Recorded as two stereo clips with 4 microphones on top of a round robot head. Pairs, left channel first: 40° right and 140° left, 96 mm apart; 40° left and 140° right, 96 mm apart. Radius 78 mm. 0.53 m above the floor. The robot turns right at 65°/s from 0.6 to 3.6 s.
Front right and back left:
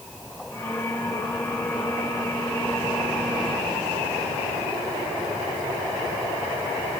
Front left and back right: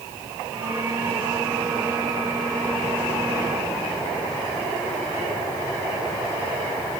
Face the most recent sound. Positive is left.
No sound to turn to.